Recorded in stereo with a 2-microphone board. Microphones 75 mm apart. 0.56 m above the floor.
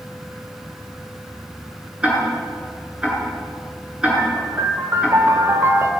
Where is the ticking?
15° right (ahead or behind), 7.5 m.